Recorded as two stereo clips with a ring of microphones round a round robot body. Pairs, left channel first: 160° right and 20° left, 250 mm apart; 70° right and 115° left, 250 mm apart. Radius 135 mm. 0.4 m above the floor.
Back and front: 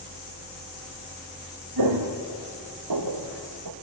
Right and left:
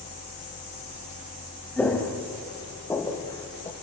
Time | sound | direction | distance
1.8 | footsteps | 20° left | 4 m